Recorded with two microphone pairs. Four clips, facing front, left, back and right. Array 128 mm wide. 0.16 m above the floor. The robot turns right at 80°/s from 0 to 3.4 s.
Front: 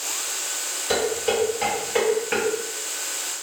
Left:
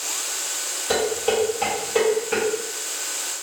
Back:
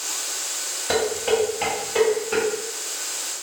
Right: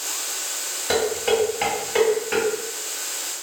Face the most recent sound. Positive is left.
turn(degrees=65)